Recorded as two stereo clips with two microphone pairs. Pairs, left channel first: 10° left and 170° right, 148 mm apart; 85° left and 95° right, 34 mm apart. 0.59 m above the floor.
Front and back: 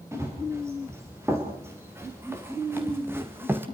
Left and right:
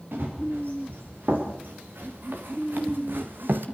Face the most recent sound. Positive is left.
turn(degrees=-95)